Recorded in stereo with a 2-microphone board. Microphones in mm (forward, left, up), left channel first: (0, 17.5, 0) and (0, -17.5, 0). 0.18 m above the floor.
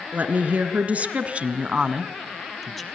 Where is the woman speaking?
50° right (ahead or behind), 1.9 m; by 2.9 s 5° left (ahead or behind), 1.0 m.